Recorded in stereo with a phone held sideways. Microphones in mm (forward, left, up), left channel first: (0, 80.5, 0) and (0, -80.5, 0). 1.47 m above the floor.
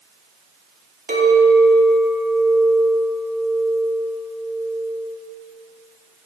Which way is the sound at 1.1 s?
65° right (ahead or behind).